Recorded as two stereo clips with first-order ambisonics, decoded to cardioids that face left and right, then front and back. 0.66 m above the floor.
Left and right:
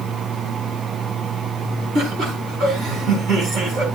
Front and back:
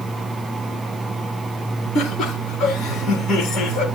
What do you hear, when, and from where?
1.9 s laughter: 45° right, 5 m